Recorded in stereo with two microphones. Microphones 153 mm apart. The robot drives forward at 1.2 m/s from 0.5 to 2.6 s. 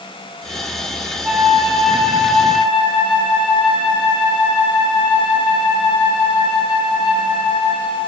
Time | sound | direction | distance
1.2 | a flute | 10° right (ahead or behind) | 1.1 m